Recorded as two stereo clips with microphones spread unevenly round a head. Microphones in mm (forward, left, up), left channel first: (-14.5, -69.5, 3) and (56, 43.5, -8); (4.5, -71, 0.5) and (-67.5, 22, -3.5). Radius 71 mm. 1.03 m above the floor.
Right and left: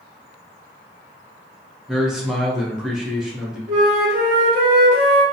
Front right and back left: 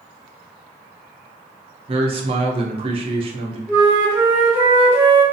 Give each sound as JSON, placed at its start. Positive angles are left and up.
{"t": 1.9, "sound": "a man speaking", "azimuth_deg": 140, "distance_m": 0.6}
{"t": 3.7, "sound": "a flute", "azimuth_deg": 60, "distance_m": 0.7}